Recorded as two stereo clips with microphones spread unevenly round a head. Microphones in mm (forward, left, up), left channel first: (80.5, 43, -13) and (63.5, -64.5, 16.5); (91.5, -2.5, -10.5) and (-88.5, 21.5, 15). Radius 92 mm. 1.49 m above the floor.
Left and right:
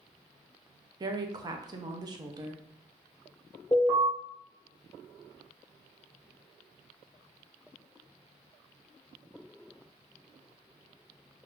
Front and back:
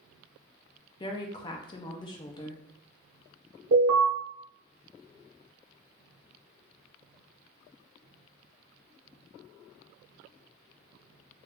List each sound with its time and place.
1.0 s a woman speaking: 75° right, 0.5 m
3.7 s an alarm: 170° left, 1.1 m